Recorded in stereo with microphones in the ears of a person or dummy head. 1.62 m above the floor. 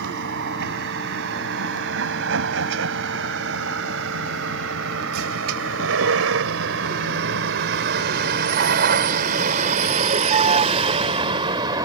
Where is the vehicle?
65° right (ahead or behind); by 11.8 s 25° right (ahead or behind).